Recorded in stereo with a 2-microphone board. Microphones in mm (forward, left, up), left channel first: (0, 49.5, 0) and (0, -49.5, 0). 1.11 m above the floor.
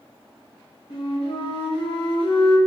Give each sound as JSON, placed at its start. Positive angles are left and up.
{"t": 0.9, "sound": "a flute", "side_deg": 70, "distance_m": 0.7}